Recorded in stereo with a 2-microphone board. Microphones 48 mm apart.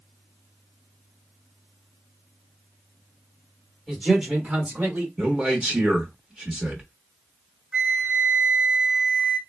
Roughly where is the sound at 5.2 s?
Centre.